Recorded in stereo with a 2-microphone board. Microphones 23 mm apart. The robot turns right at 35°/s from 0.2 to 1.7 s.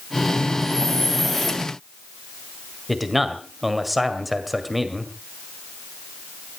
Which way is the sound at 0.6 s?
150° left.